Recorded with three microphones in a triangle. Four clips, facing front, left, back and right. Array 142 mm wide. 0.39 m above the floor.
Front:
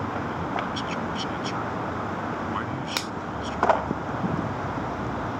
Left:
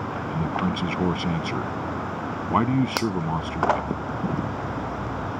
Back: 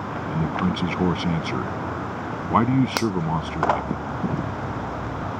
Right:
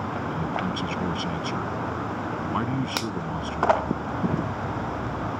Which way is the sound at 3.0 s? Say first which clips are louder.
Left 5 dB, back 9 dB; 150° left.